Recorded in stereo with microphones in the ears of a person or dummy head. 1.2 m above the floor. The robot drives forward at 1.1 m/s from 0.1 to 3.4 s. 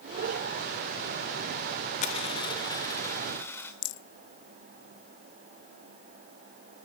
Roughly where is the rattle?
Left.